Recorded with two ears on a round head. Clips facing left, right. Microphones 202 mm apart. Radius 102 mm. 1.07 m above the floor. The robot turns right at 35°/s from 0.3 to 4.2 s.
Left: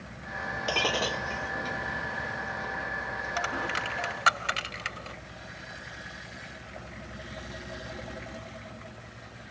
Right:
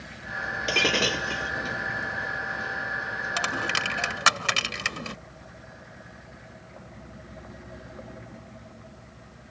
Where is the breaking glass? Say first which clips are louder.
Right 4 dB; 25° right (ahead or behind); by 1.5 s 55° right (ahead or behind).